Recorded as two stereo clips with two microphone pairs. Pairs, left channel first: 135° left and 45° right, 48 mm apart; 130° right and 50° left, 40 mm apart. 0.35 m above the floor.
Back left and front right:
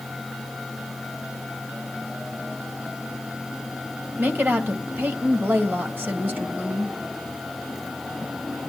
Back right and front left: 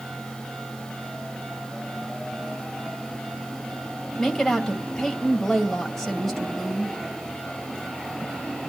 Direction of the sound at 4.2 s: 50° right.